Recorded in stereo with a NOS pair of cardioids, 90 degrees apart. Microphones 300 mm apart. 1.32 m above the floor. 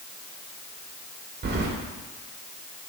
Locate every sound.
1.4 s keys jangling: 30° right, 2 m